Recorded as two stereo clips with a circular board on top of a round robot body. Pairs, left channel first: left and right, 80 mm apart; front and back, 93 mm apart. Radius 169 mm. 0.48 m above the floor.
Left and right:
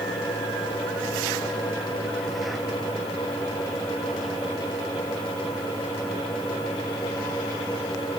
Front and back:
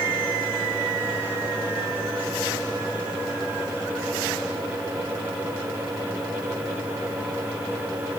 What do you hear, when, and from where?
Only background noise.